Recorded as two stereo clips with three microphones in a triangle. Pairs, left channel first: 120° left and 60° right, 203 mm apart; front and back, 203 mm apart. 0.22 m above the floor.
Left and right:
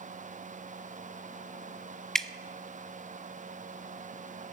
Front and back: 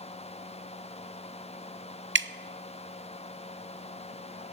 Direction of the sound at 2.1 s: 155° right.